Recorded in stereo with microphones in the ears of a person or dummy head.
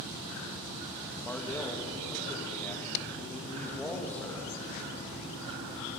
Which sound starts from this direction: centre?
A man speaking, at 1.2 s.